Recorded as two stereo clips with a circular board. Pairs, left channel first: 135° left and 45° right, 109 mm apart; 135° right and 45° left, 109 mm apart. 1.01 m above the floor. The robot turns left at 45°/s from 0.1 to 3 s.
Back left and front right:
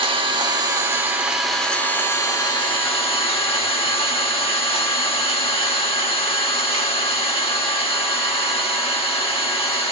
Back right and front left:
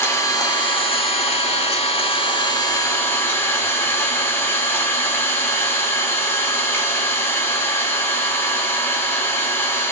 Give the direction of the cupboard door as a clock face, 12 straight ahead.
I don't hear a cupboard door.